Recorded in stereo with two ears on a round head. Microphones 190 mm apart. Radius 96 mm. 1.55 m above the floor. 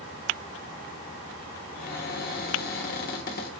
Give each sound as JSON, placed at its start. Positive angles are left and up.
{"t": 1.8, "sound": "a cupboard door", "side_deg": 45, "distance_m": 1.0}